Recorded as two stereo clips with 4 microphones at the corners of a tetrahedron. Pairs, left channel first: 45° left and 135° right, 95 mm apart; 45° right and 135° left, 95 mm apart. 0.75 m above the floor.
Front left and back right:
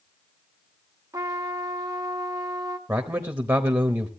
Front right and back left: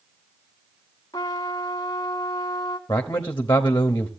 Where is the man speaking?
95° right, 0.8 m.